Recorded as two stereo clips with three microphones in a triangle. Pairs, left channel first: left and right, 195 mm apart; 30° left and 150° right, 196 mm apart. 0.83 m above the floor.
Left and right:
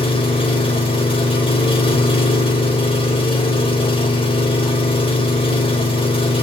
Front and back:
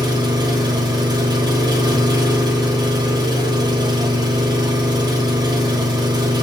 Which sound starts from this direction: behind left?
An engine running, at 0.0 s.